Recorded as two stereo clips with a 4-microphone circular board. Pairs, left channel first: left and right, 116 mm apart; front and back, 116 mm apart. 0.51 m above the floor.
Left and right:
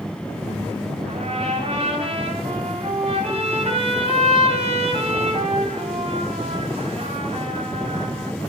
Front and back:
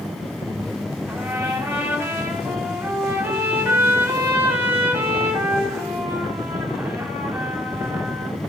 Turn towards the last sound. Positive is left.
turn(degrees=-105)